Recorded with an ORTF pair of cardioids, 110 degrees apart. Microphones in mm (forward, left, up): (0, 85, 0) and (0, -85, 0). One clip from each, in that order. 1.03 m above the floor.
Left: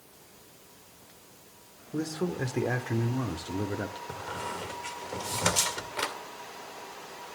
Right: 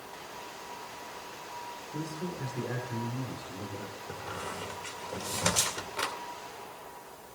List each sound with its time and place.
1.9 s a man speaking: 55° left, 2.5 m; by 4.0 s 75° left, 1.9 m
4.1 s a squeak: 10° left, 2 m